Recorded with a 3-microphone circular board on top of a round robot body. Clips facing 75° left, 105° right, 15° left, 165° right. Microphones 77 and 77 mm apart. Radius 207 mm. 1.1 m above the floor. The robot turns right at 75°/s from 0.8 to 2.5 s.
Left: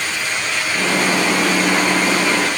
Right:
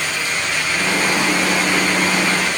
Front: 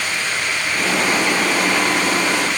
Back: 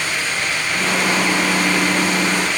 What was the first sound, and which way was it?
Only background noise.